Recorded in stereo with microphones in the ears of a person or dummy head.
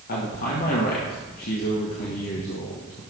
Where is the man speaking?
55° left (ahead or behind), 1.6 m.